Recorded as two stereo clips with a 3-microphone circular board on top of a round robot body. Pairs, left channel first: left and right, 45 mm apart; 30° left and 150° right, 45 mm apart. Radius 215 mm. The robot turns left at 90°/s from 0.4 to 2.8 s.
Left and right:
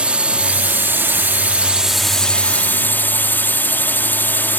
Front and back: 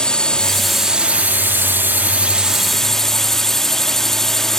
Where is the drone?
35° right; by 4.6 s 110° left.